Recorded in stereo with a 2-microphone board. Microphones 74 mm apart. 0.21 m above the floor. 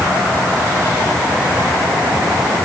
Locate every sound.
Only background noise.